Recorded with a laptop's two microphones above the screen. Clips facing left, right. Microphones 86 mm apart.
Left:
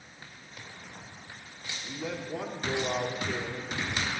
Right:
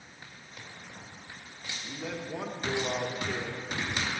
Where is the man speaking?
10° right (ahead or behind), 1.4 m.